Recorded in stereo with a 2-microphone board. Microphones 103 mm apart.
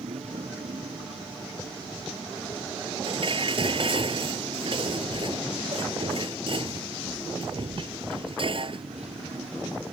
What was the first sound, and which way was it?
A motorcycle, 90° right.